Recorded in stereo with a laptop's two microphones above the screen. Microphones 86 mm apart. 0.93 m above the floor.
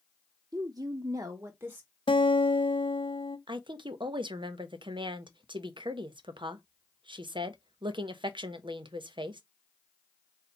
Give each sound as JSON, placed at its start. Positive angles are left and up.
{"t": 0.5, "sound": "a woman speaking", "side_deg": -45, "distance_m": 0.5}
{"t": 2.1, "sound": "a guitar", "side_deg": 80, "distance_m": 0.6}
{"t": 3.5, "sound": "a woman speaking", "side_deg": -70, "distance_m": 0.6}